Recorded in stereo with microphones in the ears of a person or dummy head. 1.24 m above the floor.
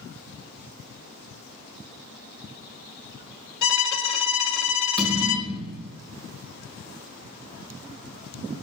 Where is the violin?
65° left (ahead or behind), 0.8 m.